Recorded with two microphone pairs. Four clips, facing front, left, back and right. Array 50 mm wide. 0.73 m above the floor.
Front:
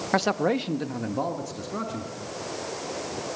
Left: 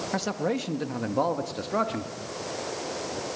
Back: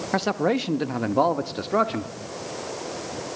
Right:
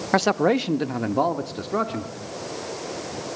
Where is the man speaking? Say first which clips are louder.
Right 10 dB, back 1 dB; 75° right, 0.6 m; by 2.1 s 170° left, 1.1 m.